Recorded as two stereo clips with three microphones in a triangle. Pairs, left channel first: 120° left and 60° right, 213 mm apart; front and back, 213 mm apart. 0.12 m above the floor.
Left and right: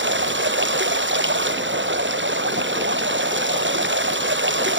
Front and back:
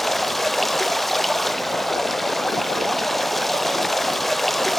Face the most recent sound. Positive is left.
turn(degrees=-90)